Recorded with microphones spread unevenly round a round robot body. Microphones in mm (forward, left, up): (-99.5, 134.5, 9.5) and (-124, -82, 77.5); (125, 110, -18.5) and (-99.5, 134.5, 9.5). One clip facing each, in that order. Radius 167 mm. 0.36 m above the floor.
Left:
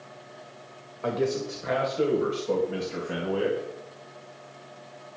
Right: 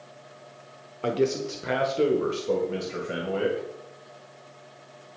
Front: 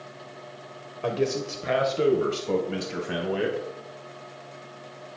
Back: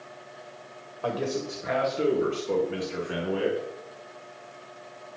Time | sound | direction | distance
1.0 | a man speaking | 45° right | 1.3 m